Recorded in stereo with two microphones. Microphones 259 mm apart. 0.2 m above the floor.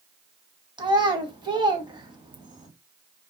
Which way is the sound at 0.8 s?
15° right (ahead or behind).